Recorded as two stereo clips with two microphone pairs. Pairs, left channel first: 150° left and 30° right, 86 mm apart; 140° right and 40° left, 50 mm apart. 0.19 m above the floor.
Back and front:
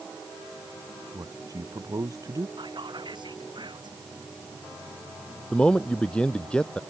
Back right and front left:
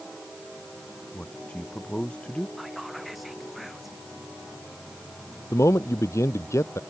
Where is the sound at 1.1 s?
75° right.